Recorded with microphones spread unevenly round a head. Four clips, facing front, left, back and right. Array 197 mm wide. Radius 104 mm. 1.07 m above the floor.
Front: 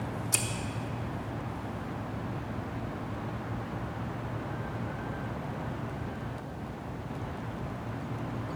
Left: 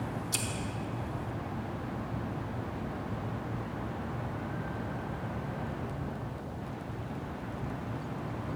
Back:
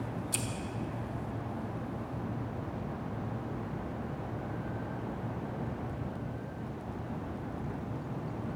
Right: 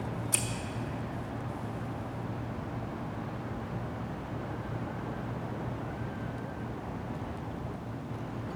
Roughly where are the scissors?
Ahead right.